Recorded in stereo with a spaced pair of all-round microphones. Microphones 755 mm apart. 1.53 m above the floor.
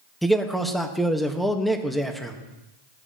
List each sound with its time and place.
0.2 s a man speaking: centre (ahead or behind), 1.1 m